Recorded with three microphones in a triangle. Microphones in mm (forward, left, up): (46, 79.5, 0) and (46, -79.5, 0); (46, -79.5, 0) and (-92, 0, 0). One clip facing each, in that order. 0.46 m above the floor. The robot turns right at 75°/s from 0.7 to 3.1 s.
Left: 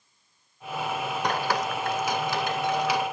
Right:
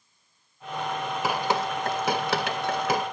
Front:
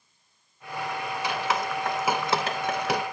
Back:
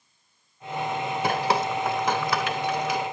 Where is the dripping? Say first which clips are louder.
Right 1 dB, back 4 dB; 175° right, 0.7 m; by 3.0 s 40° right, 0.7 m.